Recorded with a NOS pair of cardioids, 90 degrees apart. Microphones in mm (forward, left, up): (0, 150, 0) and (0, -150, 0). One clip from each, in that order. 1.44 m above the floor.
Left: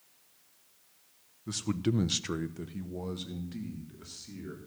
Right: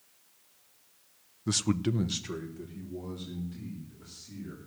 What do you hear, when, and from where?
1.5 s a man speaking: 45° right, 0.7 m; by 4.6 s 65° left, 3.5 m